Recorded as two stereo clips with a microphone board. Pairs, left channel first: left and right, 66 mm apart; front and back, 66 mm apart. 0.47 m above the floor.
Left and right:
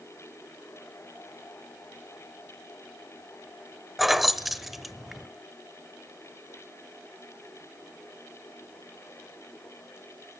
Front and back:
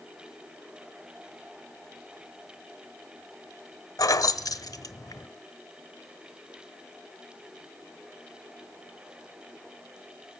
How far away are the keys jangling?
About 1.1 m.